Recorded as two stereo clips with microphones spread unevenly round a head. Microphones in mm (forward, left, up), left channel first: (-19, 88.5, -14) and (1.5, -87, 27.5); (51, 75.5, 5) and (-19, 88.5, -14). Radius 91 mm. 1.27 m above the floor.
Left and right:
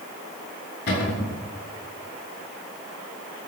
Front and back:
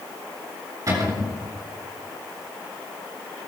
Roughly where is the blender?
I don't hear a blender.